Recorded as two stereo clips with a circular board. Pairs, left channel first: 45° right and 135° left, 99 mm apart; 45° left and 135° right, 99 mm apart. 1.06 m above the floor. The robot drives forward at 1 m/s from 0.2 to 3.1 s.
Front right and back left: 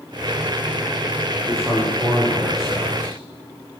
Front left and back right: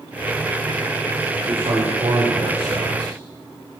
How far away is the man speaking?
About 4 m.